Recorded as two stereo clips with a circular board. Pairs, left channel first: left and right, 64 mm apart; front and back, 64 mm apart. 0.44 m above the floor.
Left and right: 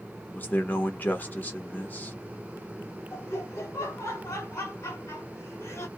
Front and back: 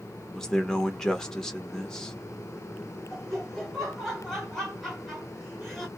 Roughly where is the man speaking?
Left.